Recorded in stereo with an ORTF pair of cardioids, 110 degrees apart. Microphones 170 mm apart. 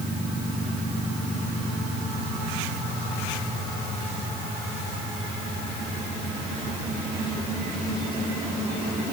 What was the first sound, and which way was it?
Only background noise.